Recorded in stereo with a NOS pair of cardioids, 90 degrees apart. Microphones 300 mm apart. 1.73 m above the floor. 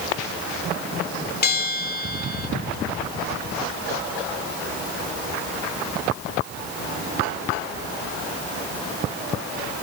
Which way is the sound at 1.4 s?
30° left.